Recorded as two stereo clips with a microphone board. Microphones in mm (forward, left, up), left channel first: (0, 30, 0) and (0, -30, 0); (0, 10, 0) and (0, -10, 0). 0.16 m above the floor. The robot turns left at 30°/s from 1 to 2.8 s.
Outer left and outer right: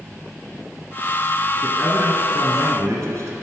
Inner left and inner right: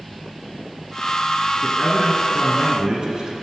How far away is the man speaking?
About 1.5 m.